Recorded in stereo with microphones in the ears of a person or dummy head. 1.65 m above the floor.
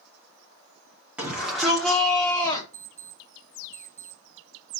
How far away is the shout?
About 4 m.